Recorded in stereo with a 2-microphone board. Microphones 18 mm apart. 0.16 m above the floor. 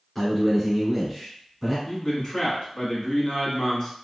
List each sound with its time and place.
0.1 s a man speaking: centre (ahead or behind), 1.7 m
1.9 s a man speaking: 25° left (ahead or behind), 1.4 m